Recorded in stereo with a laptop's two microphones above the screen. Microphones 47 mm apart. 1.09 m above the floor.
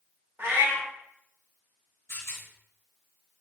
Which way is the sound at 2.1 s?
65° left (ahead or behind).